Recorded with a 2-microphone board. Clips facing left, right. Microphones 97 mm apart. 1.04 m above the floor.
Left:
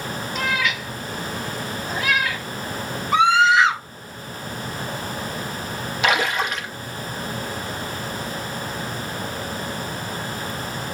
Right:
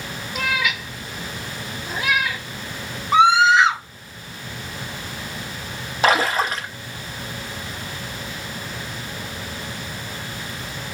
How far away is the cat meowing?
About 0.9 m.